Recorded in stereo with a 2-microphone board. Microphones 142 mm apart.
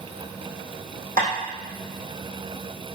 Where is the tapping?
70° right (ahead or behind), 5 m.